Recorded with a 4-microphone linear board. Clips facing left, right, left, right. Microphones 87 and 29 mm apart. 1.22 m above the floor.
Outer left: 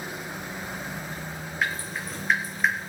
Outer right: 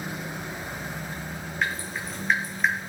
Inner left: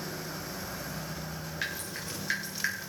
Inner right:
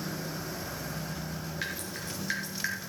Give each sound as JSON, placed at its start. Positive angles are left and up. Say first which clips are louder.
{"t": 1.6, "sound": "dripping", "louder": "even, inner left 2 dB", "side_deg": 0, "distance_m": 4.5}